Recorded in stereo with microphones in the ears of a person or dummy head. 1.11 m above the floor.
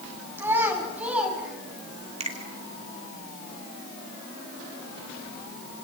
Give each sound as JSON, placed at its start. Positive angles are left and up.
{"t": 0.4, "sound": "a child speaking", "side_deg": -15, "distance_m": 5.0}
{"t": 2.2, "sound": "a finger snap", "side_deg": -30, "distance_m": 1.7}